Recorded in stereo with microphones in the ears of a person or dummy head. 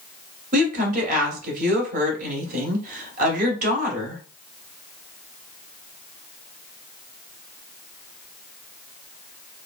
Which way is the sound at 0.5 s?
55° right (ahead or behind).